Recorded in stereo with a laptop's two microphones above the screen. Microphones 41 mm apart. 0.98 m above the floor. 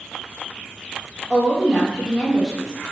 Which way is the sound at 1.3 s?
5° left (ahead or behind).